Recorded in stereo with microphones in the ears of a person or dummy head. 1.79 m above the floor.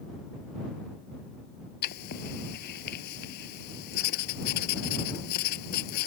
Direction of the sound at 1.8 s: 60° left (ahead or behind).